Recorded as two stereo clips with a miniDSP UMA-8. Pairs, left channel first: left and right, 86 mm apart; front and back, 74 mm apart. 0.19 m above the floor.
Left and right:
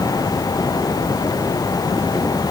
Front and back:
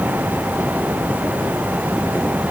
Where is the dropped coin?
I don't hear a dropped coin.